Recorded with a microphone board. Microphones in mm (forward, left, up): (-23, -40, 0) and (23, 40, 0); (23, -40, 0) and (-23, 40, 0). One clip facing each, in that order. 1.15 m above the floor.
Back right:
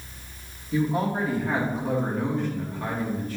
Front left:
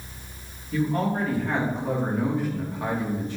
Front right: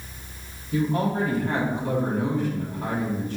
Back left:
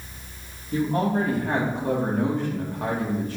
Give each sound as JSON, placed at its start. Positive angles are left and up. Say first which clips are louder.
{"t": 0.7, "sound": "a man speaking", "louder": "even, back left 1 dB", "azimuth_deg": 165, "distance_m": 2.5}